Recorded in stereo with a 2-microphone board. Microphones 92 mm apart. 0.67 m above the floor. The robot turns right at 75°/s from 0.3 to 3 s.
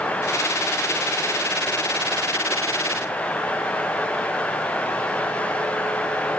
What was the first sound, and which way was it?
Only background noise.